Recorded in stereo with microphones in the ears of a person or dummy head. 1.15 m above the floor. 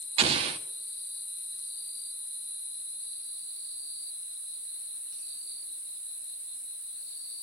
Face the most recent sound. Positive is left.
turn(degrees=-35)  # may be behind; listen again after turning